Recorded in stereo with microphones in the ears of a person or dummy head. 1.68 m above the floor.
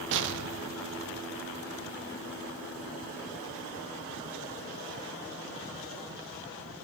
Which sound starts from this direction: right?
An explosion, at 0.1 s.